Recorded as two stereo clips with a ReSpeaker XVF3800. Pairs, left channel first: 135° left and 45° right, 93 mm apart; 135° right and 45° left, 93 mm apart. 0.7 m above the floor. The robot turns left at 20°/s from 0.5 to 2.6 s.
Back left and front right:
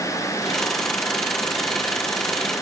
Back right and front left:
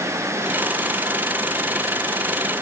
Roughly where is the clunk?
No clunk in this recording.